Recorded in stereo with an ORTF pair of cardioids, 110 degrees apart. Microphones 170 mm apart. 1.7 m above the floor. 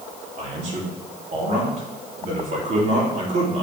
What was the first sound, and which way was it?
A man speaking, 45° right.